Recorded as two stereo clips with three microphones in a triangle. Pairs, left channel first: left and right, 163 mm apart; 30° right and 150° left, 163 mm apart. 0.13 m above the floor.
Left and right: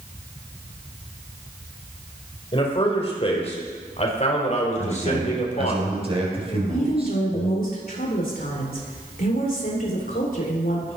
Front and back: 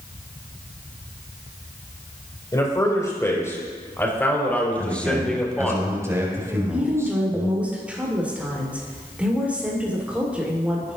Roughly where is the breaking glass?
No breaking glass in this recording.